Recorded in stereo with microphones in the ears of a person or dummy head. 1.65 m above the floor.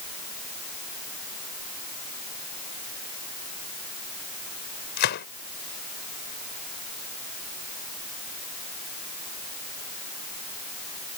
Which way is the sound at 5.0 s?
60° left (ahead or behind).